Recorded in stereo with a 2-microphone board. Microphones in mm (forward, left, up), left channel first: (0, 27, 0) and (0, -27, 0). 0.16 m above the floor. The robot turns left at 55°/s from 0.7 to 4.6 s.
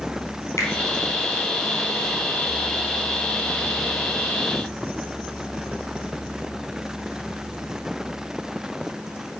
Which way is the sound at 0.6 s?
55° left (ahead or behind).